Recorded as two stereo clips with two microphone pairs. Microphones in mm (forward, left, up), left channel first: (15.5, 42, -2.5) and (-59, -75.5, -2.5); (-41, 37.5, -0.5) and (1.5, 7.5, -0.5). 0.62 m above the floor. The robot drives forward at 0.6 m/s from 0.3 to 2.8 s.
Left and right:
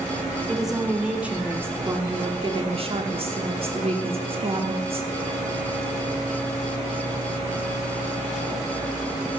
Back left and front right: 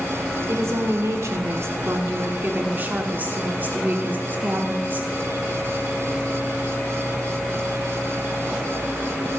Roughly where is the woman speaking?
Ahead right.